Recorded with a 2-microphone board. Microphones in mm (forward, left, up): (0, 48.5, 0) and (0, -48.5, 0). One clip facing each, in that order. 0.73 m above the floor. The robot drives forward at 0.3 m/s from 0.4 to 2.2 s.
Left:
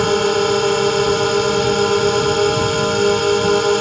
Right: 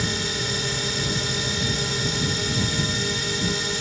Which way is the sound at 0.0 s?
60° left (ahead or behind).